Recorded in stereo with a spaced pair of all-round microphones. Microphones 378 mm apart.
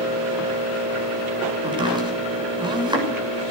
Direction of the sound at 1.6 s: 10° right (ahead or behind).